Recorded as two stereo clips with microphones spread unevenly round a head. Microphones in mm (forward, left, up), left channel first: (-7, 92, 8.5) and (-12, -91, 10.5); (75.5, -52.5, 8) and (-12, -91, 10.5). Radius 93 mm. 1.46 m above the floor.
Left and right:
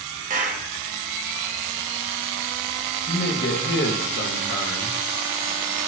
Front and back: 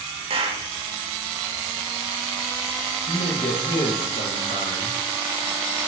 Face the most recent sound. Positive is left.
turn(degrees=50)